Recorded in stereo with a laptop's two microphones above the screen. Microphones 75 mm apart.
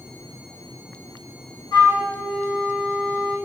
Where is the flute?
65° left (ahead or behind), 3.5 m.